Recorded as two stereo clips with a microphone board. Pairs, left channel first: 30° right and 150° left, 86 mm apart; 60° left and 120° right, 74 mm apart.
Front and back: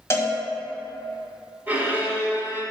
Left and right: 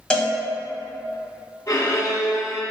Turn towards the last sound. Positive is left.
turn(degrees=85)